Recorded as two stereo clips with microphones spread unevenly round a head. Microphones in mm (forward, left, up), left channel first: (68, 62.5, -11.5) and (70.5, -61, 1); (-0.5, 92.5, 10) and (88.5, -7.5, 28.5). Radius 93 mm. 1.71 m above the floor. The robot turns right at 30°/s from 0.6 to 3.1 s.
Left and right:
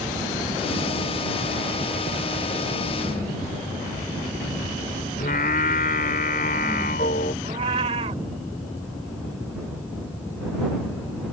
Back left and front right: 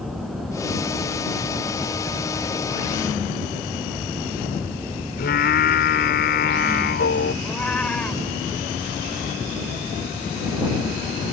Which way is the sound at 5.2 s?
140° left.